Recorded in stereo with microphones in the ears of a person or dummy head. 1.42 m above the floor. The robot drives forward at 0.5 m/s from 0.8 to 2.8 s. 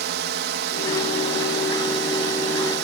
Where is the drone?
55° right (ahead or behind).